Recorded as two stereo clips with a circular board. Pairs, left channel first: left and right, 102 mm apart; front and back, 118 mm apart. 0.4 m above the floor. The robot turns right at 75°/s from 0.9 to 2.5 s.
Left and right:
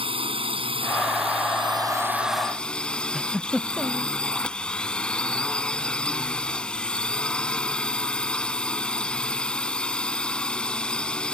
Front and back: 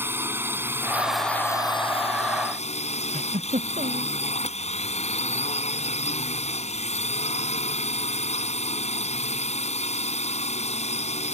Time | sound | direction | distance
0.0 | a drone | 110° right | ?
3.1 | a giggle | straight behind | ?